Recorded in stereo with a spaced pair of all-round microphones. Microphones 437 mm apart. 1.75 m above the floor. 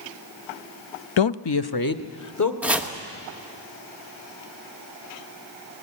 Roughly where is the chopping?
Centre.